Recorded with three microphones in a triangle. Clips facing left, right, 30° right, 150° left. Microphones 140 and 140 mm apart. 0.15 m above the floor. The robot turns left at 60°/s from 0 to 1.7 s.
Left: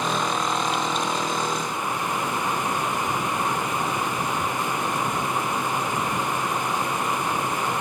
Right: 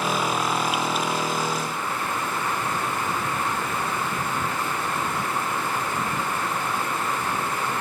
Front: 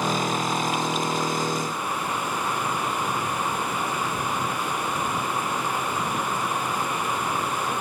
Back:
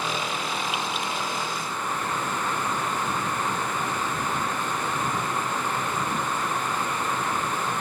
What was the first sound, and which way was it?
Only background noise.